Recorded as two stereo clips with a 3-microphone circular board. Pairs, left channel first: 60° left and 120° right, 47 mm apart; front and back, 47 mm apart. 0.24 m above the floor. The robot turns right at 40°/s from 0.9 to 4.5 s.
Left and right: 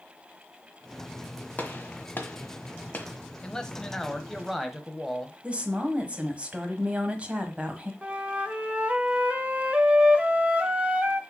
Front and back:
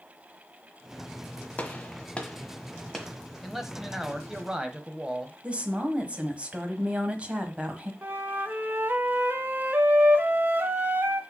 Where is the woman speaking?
150° right, 1.3 m.